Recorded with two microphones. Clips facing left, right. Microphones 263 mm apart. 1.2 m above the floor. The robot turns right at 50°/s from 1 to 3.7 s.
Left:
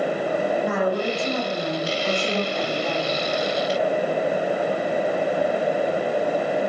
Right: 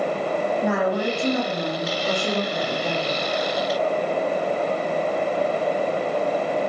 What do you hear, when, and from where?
0.6 s a woman speaking: 90° right, 7.5 m; by 3.2 s 20° left, 7.5 m